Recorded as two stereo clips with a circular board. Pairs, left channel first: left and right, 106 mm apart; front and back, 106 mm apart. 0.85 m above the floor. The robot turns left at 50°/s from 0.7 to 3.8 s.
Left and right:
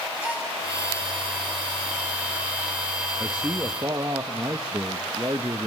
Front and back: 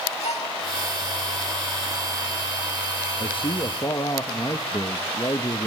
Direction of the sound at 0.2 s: 10° right.